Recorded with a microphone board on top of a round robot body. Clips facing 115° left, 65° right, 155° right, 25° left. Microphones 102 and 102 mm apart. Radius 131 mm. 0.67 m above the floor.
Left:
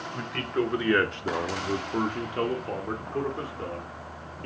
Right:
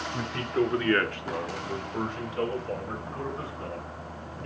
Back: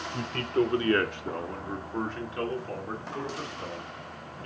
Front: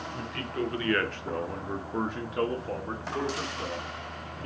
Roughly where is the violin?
No violin in this recording.